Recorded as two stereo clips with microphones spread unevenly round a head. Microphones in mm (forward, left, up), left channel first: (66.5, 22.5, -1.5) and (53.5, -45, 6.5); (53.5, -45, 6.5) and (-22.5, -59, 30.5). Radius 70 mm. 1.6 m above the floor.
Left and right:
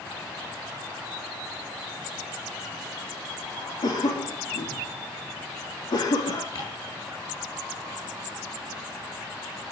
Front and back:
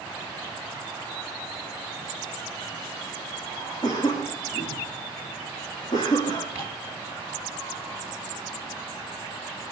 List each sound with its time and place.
3.8 s a cough: 65° left, 3 m
6.5 s ticking: 115° left, 9.5 m